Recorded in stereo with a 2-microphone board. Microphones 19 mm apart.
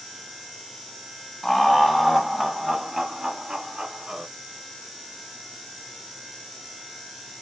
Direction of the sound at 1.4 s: 20° left (ahead or behind).